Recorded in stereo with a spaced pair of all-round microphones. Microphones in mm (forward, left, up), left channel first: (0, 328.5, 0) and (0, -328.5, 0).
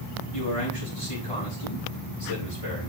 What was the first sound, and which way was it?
A man speaking, 55° left (ahead or behind).